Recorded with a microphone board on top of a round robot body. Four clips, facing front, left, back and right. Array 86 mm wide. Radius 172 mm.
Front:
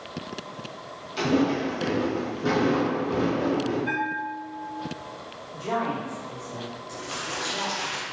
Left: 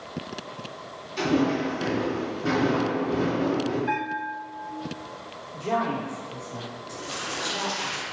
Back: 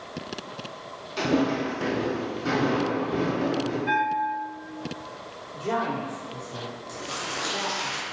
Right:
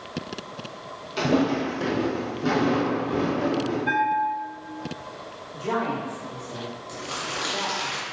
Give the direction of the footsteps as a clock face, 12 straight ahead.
3 o'clock.